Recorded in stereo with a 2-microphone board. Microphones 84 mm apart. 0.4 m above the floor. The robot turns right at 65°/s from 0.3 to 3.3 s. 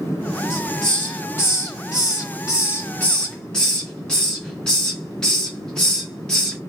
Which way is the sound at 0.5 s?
10° right (ahead or behind).